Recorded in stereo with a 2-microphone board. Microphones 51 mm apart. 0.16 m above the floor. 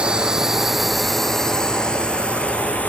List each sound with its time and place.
0.0 s a drone: 20° right (ahead or behind); by 2.9 s 30° left (ahead or behind)